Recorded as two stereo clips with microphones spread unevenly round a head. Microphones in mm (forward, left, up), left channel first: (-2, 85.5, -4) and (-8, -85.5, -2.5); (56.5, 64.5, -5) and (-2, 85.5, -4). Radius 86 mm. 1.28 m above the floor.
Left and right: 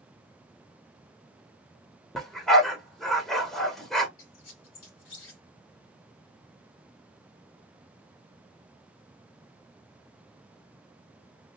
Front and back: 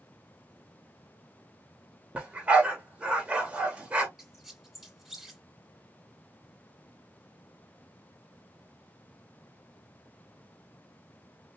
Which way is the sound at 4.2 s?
75° left.